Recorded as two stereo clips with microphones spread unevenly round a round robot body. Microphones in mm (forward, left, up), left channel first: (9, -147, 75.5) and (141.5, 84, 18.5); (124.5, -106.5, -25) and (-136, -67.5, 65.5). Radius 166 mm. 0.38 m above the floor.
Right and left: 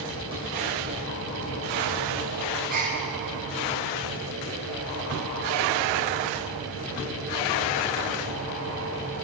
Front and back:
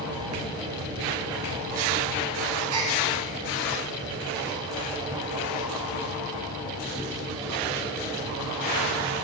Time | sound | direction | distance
2.7 | a gasp | 125° left | 0.6 m